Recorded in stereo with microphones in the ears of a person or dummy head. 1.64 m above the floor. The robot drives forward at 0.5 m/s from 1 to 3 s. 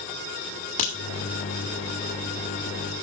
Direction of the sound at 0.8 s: 45° left (ahead or behind).